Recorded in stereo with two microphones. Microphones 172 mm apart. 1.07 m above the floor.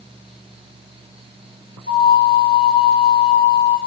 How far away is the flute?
About 2.0 m.